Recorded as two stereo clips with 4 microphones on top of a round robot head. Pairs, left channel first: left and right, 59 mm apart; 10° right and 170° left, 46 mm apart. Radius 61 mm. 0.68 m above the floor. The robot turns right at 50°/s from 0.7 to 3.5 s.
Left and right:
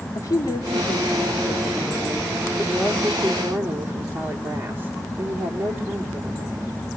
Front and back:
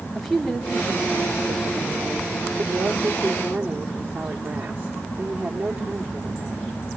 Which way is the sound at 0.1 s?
100° left.